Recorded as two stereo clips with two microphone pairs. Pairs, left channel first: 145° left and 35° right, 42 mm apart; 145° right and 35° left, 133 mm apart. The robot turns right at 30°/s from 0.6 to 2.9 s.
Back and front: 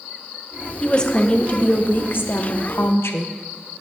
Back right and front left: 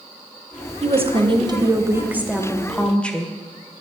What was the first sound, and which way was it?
A woman speaking, 75° left.